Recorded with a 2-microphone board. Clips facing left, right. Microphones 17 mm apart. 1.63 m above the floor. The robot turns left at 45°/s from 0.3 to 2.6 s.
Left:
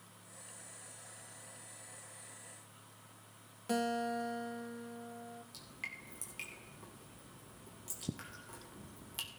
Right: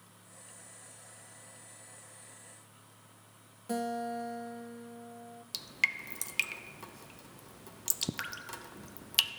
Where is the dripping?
75° right (ahead or behind), 0.6 m.